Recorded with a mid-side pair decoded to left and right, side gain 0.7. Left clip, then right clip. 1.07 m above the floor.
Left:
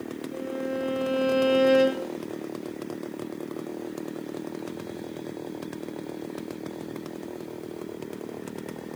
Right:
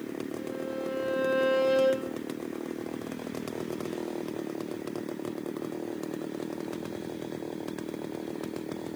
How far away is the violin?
About 2 m.